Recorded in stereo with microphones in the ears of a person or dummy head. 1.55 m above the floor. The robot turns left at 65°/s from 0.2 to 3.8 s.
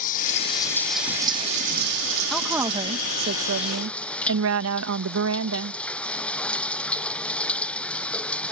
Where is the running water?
50° left; by 8.5 s 175° left.